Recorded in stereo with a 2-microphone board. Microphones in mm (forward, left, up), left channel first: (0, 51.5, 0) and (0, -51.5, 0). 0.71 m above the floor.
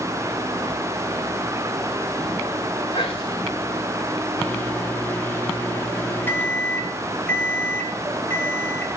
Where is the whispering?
70° left (ahead or behind), 1.8 m.